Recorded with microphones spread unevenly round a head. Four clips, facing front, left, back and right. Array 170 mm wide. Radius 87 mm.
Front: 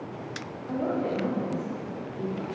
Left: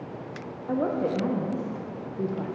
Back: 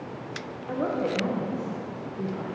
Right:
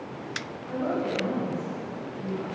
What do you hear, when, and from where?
0.7 s a woman speaking: 110° left, 0.8 m